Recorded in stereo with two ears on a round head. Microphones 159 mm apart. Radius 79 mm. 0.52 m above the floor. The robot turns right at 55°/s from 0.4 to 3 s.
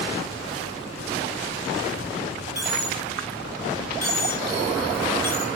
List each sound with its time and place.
2.5 s a dropped coin: 20° right (ahead or behind), 7.5 m; by 5.5 s centre (ahead or behind), 7.5 m